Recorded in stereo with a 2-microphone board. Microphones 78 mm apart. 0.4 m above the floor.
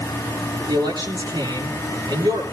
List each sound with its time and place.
0.7 s a man speaking: 65° right (ahead or behind), 7 m